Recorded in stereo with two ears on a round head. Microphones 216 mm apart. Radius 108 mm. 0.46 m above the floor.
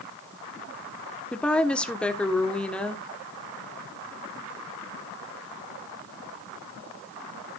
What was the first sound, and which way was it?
A woman speaking, 5° left (ahead or behind).